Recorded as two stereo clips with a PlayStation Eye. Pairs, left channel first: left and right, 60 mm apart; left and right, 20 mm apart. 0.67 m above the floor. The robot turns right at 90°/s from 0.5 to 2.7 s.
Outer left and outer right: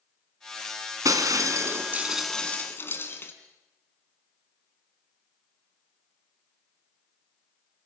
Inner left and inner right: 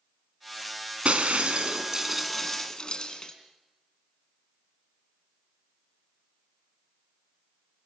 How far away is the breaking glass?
About 2.5 m.